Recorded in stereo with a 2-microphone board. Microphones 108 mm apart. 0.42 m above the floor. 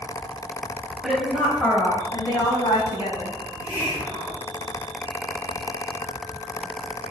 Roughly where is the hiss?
Centre.